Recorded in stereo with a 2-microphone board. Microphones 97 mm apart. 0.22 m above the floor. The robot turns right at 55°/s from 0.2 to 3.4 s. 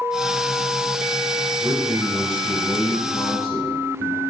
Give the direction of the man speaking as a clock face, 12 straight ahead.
2 o'clock.